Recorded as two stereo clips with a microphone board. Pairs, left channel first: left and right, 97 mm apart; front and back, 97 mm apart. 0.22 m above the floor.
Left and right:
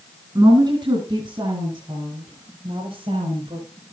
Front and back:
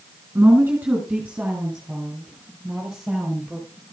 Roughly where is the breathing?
No breathing in this recording.